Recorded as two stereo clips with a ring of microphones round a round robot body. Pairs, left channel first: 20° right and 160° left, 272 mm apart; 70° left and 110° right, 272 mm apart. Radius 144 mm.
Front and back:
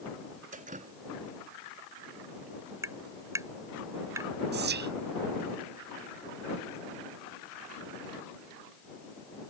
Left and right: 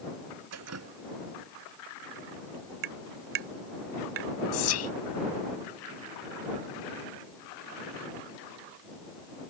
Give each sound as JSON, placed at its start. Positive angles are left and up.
{"t": 0.5, "sound": "dripping", "azimuth_deg": -140}
{"t": 2.8, "sound": "tapping", "azimuth_deg": -120}
{"t": 4.5, "sound": "whispering", "azimuth_deg": 105}